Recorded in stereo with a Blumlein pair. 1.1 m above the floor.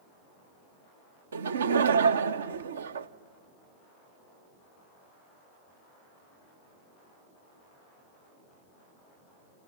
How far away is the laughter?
About 0.8 m.